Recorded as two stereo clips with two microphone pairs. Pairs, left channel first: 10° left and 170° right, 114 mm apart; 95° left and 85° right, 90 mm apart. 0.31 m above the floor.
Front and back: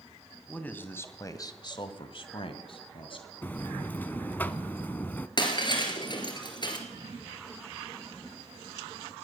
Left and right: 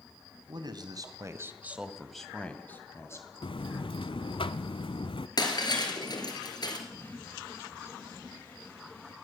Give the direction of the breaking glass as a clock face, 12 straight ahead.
10 o'clock.